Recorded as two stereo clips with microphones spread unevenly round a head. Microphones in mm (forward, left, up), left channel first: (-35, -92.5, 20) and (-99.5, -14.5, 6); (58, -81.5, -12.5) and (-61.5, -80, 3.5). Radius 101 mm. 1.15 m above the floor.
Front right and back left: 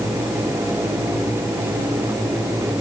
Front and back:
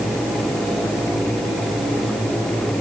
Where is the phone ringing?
No phone ringing in this recording.